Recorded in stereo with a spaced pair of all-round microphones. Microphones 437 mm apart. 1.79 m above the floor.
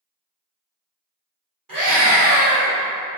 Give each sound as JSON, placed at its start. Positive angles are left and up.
{"t": 1.7, "sound": "a scream", "side_deg": -50, "distance_m": 2.0}